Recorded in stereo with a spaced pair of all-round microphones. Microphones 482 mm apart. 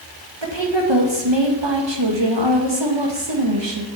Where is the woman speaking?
60° right (ahead or behind), 1.8 m.